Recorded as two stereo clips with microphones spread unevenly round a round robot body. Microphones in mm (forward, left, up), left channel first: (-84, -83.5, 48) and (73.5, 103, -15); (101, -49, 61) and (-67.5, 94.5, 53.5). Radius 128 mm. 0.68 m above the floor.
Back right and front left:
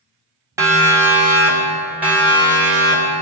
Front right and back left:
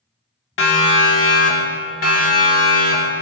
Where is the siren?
20° right, 2 m; by 3.2 s 30° right, 3.5 m.